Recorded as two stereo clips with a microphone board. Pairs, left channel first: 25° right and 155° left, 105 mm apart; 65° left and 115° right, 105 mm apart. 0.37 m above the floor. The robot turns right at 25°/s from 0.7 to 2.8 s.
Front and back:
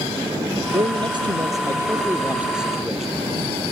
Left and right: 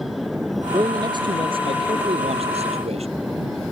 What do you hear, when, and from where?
0.7 s a man speaking: 165° right; by 3.1 s 115° right